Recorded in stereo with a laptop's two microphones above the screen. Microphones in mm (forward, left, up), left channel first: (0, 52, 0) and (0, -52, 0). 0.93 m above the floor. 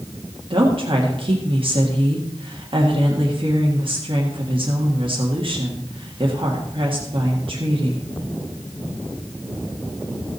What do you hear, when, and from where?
0.5 s a woman speaking: 55° right (ahead or behind), 1.6 m